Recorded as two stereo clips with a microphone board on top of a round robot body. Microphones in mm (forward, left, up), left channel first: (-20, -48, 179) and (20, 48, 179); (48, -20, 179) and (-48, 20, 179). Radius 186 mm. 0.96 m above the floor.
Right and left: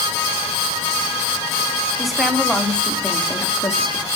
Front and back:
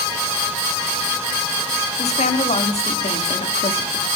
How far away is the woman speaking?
About 3 m.